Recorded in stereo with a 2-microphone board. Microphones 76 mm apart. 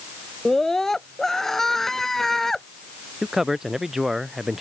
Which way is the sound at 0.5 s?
5° left (ahead or behind).